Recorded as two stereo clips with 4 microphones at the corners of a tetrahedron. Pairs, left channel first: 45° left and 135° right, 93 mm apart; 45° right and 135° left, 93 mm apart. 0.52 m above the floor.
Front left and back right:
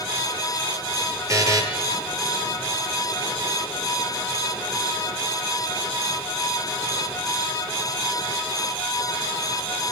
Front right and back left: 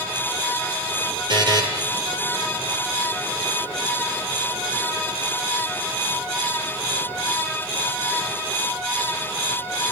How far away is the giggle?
No giggle in this recording.